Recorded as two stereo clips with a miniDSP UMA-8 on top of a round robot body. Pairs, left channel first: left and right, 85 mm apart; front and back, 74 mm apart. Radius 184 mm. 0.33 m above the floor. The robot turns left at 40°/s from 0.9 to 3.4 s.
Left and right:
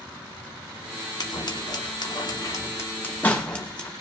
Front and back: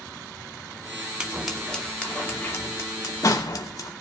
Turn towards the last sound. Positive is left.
turn(degrees=15)